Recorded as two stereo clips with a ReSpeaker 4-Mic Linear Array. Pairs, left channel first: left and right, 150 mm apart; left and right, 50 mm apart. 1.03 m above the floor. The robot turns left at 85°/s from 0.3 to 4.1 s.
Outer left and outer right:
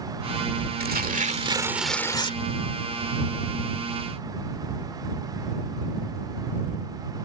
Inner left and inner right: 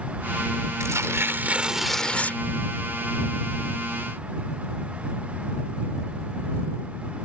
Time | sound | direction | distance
0.8 | tearing paper | 90° right | ?